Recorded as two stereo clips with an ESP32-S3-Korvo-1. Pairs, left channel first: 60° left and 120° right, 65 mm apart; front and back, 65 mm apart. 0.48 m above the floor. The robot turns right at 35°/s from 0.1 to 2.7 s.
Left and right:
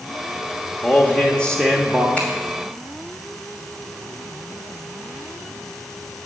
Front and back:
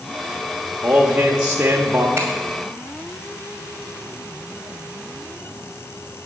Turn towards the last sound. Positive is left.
turn(degrees=145)